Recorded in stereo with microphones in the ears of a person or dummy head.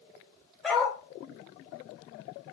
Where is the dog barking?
Centre (ahead or behind), 1.8 m.